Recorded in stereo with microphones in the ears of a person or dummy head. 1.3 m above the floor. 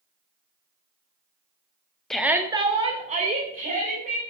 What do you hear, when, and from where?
2.1 s a shout: 10° left (ahead or behind), 0.8 m; by 4.2 s 40° right (ahead or behind), 3 m